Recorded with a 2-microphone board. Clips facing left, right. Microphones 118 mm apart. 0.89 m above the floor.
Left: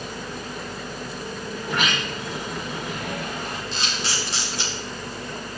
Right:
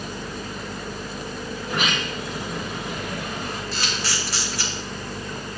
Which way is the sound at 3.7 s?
25° left (ahead or behind).